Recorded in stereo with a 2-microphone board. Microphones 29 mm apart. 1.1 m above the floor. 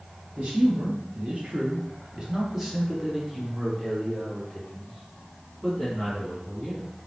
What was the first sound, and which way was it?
A man speaking, 40° right (ahead or behind).